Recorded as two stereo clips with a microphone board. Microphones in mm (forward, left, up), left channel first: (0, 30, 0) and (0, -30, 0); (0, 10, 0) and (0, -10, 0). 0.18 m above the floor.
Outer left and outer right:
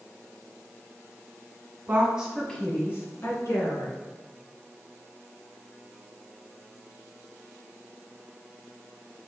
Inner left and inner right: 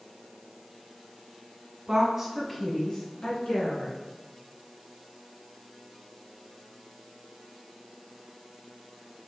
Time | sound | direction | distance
1.9 | a woman speaking | 35° right (ahead or behind) | 1.1 m